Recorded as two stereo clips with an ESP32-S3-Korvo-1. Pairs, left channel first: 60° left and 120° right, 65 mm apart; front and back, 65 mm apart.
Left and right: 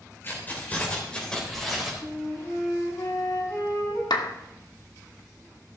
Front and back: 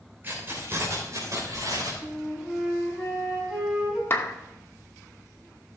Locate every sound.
0.2 s keys jangling: 120° left, 3 m; by 1.9 s 150° left, 3.5 m
2.0 s a flute: 95° left, 5 m
4.1 s a clap: 55° left, 1.0 m